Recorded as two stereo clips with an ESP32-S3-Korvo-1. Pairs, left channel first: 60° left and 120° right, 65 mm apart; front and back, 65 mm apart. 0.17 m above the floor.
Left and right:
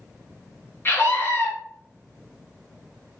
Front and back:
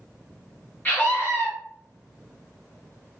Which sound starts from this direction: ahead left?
A scream, at 0.8 s.